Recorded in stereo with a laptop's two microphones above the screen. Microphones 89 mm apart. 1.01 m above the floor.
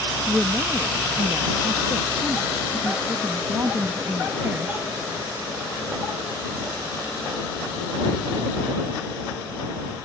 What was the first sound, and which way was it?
A woman speaking, 25° right (ahead or behind).